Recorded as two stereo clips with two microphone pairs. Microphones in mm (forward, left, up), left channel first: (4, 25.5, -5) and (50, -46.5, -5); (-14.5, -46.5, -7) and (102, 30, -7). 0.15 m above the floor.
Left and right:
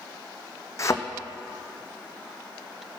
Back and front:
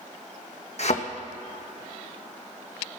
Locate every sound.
0.8 s a thud: 175° left, 1.3 m